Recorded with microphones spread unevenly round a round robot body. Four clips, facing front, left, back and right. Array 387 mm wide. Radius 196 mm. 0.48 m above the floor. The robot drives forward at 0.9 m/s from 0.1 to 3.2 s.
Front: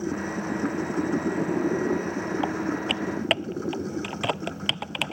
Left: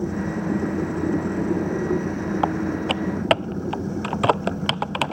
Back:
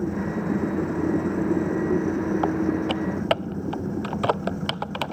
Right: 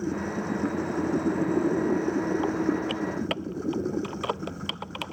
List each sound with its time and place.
2.4 s typing on a keyboard: 90° left